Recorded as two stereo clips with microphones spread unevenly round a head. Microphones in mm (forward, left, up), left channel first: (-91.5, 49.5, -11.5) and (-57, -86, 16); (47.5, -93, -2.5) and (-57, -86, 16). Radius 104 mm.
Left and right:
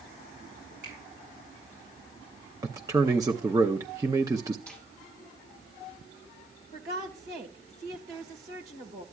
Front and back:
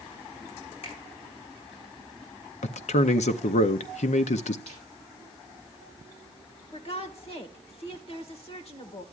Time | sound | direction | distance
0.8 | a finger snap | 25° right | 6 m
2.6 | a man speaking | straight ahead | 0.5 m
4.7 | a snare drum | 25° left | 5.5 m
6.7 | a woman speaking | 30° right | 1.7 m